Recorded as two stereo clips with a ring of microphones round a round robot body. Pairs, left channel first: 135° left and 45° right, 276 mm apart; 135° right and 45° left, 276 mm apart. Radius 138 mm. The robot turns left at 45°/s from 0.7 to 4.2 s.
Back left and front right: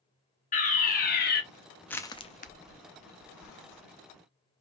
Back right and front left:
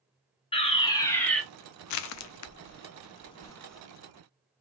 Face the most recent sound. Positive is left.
turn(degrees=115)